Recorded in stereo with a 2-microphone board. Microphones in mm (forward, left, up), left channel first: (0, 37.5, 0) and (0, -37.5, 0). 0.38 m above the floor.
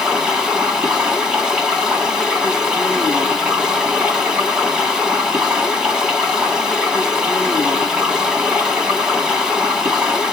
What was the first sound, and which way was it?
Running water, 15° right (ahead or behind).